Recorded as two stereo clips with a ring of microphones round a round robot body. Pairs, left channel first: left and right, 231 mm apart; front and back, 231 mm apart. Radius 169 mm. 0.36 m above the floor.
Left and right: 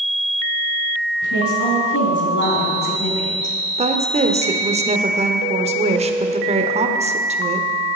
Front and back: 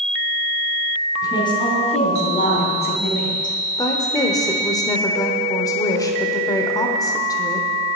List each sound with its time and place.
1.2 s a woman speaking: 75° left, 4 m; by 3.5 s 30° left, 3.5 m
3.8 s a woman speaking: 60° right, 1.1 m